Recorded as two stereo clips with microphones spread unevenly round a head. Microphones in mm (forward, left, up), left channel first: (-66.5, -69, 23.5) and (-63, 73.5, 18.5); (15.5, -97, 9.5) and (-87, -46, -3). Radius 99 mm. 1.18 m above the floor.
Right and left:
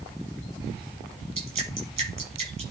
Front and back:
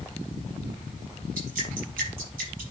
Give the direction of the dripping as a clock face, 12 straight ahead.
7 o'clock.